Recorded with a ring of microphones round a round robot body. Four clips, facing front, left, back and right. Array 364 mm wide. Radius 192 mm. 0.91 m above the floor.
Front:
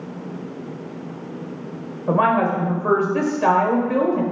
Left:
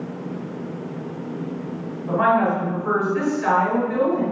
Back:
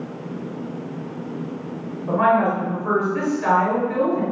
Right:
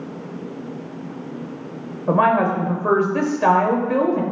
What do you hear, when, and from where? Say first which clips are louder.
2.1 s a woman speaking: right 2 dB, even; 55° right, 5 m